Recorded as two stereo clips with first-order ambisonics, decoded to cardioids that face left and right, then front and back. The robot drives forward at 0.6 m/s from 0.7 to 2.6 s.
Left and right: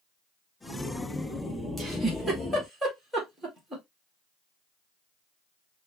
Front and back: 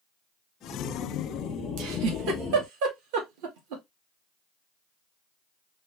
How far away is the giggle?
About 1.8 m.